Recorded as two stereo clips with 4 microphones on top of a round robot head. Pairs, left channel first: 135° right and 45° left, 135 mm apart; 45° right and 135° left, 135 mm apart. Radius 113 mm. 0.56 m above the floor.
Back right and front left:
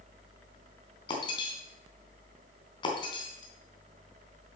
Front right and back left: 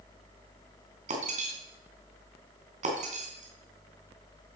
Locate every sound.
1.1 s breaking glass: 170° left, 3.5 m